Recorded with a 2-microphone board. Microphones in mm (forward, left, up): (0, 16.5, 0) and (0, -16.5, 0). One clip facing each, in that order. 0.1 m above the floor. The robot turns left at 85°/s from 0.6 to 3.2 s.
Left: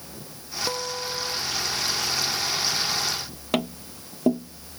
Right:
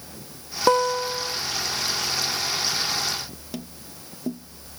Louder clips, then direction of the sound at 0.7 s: Right 12 dB; 125° right.